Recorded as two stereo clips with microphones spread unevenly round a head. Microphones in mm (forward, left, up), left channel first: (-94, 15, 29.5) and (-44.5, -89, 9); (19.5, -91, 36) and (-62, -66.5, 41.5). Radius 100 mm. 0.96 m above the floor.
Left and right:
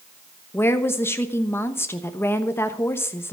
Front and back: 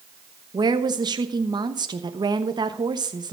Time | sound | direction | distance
0.5 | a woman speaking | 170° right | 1.1 m